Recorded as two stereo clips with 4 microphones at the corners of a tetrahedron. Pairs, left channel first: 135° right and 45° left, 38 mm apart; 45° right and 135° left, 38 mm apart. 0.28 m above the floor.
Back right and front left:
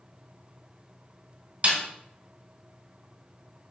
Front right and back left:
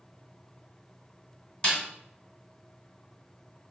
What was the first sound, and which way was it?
A snare drum, 15° left.